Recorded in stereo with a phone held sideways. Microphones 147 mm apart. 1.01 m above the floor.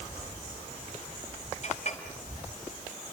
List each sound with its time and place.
1.6 s a clink: 50° left (ahead or behind), 4.5 m